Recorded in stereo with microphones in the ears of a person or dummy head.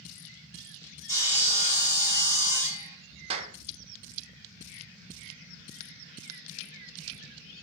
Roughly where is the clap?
Right.